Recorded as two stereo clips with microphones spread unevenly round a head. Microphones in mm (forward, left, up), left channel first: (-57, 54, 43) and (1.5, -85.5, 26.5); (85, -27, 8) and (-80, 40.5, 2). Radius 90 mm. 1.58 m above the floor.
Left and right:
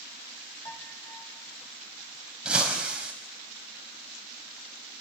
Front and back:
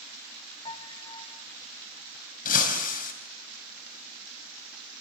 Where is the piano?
40° left, 4 m.